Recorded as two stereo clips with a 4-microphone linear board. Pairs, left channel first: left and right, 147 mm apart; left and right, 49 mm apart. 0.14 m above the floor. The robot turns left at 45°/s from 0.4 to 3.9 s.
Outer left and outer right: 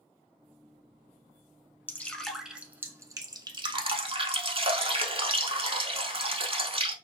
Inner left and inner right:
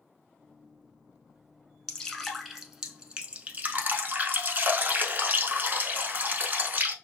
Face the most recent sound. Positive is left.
turn(degrees=-70)